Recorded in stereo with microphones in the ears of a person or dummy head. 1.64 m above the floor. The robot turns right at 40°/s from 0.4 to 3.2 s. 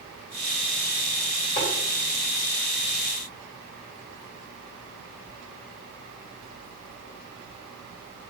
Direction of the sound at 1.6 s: 25° left (ahead or behind).